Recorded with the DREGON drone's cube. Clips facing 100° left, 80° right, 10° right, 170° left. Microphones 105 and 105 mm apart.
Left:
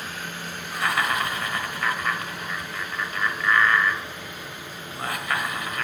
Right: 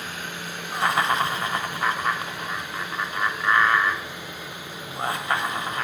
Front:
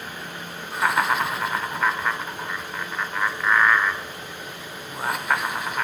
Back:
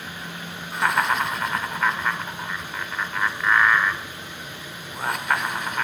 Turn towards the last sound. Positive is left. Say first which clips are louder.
# right 3 dB, even
turn(degrees=-95)